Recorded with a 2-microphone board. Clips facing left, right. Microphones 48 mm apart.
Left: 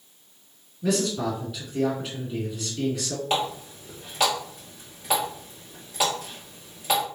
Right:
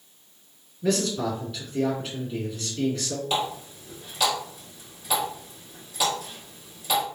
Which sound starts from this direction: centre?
A man speaking, at 0.8 s.